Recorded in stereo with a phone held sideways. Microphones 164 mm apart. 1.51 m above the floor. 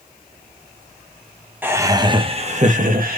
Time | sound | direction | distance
1.6 | laughter | 10° right (ahead or behind) | 1.2 m